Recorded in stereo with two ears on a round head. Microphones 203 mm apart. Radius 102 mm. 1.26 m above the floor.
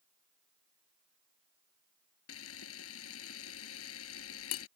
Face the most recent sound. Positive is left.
turn(degrees=65)  # may be behind; listen again after turning